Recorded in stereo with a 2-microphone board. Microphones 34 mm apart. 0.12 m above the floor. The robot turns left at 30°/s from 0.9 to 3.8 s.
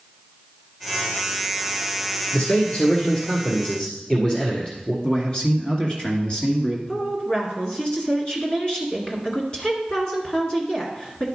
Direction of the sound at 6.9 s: 30° left (ahead or behind).